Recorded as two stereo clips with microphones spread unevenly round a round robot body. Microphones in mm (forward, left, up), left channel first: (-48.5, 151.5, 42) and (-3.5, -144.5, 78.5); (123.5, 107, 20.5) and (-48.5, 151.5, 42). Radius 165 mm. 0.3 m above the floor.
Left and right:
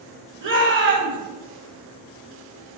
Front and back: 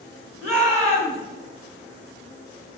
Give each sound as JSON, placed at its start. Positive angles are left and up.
{"t": 0.4, "sound": "a shout", "azimuth_deg": -125, "distance_m": 2.0}